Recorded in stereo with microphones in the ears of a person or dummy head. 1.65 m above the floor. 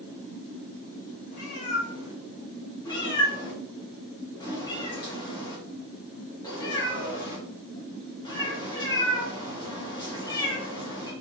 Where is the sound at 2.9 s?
20° left (ahead or behind), 1.7 m.